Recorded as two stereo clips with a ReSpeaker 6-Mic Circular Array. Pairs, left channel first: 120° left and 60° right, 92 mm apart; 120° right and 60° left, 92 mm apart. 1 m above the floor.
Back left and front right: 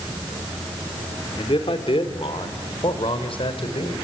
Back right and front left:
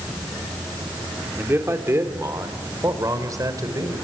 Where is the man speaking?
125° left, 3 m; by 3.9 s 110° left, 5 m.